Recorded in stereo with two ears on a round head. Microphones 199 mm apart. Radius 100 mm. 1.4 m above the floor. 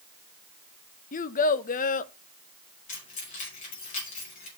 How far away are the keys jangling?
About 5 m.